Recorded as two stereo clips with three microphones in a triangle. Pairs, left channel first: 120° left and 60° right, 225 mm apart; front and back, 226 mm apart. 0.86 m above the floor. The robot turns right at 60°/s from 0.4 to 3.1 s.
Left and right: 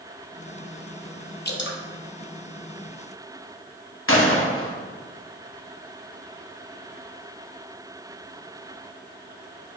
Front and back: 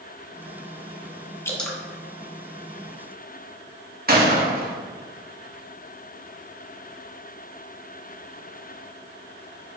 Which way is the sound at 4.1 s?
135° left.